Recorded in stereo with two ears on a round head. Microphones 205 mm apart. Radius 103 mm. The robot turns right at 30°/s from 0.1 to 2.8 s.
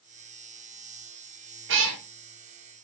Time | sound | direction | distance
1.7 | a cat meowing | 55° right (ahead or behind) | 0.6 m